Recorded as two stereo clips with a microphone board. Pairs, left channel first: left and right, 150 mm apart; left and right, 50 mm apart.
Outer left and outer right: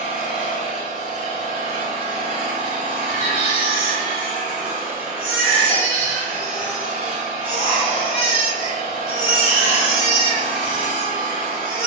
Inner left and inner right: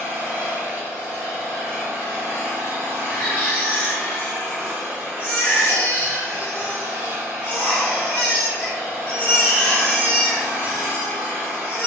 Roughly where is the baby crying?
Left.